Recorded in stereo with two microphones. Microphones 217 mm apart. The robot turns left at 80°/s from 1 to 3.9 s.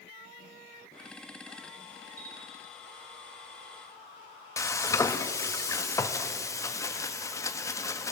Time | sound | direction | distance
2.2 | a bell | 80° left | 2.5 m
4.6 | frying | 15° left (ahead or behind) | 1.0 m